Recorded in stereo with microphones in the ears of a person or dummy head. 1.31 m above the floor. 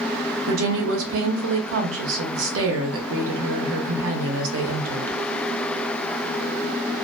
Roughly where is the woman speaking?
Right.